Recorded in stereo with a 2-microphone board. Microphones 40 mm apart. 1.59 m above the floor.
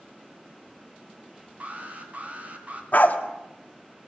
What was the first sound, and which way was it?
An alarm, 40° right (ahead or behind).